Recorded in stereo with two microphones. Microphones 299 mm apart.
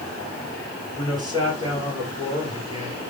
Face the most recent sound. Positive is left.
turn(degrees=-15)  # may be behind; listen again after turning